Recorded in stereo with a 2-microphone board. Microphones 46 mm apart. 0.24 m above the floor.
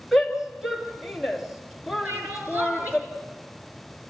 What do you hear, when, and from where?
0.1 s a shout: 5° right (ahead or behind), 3 m
2.0 s crying: 45° right (ahead or behind), 4.5 m